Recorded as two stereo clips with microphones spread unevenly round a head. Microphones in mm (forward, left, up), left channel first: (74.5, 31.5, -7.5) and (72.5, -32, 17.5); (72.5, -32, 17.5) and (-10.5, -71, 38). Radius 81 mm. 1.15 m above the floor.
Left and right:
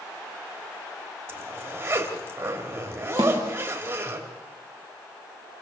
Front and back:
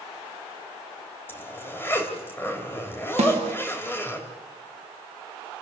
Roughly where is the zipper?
Ahead right.